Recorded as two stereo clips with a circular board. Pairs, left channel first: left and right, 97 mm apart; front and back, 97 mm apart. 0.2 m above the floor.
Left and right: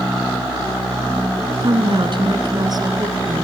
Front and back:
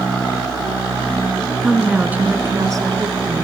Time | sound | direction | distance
1.6 | a woman speaking | 85° right | 1.9 m